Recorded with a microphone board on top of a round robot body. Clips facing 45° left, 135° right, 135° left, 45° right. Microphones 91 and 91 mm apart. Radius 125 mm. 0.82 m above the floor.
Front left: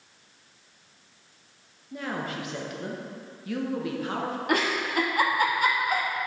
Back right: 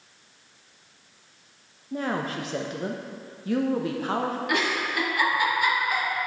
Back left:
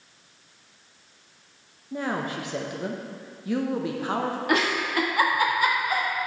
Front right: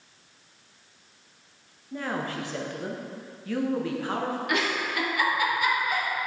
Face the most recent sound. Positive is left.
turn(degrees=90)